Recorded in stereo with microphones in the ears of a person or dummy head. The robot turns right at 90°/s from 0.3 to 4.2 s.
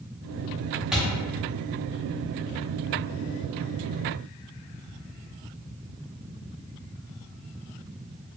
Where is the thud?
5° right (ahead or behind), 1.1 m; by 1.0 s 5° left (ahead or behind), 1.1 m.